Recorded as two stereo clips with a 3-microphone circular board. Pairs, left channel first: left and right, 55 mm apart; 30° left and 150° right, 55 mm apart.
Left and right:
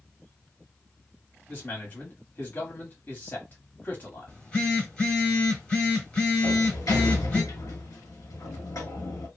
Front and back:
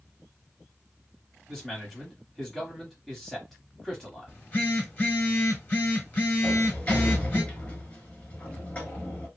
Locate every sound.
1.5 s a man speaking: 115° left, 1.3 m
4.3 s a phone buzzing: 45° left, 1.2 m
6.4 s a sliding door: 100° left, 1.1 m